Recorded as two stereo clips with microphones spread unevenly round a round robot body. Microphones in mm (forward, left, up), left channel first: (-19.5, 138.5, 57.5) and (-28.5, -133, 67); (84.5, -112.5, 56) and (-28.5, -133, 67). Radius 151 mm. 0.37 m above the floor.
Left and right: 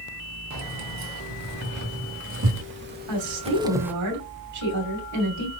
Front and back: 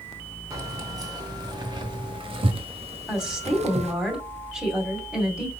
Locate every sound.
0.5 s keys jangling: 110° right, 2.5 m; by 3.9 s straight behind, 1.2 m
3.1 s a woman speaking: 85° right, 2.5 m